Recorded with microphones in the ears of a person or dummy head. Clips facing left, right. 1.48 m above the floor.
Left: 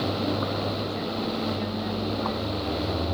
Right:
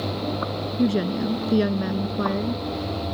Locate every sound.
0.8 s a woman speaking: 85° right